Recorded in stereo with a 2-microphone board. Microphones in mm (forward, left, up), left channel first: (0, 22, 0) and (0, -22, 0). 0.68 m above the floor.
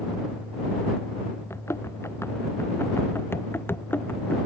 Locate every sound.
1.5 s running footsteps: 75° left (ahead or behind); by 4.4 s 45° left (ahead or behind)